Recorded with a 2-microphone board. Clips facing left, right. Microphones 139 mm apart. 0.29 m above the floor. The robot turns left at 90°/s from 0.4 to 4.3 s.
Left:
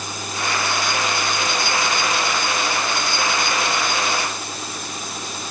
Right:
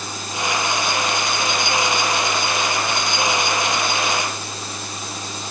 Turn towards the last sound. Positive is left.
No sound to turn to.